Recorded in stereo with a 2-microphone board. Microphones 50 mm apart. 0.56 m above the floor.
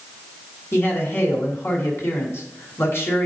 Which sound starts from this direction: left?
A man speaking, at 0.7 s.